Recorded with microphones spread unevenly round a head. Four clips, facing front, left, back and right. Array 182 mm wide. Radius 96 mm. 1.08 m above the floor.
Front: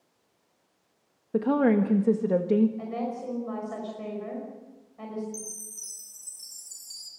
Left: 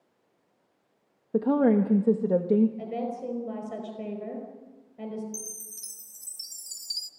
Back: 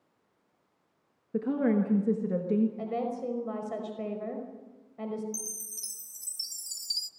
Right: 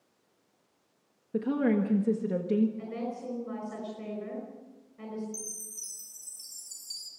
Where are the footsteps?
I don't hear footsteps.